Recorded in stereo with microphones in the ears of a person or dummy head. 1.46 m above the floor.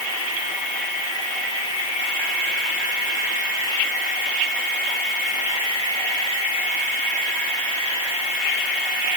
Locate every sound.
Only background noise.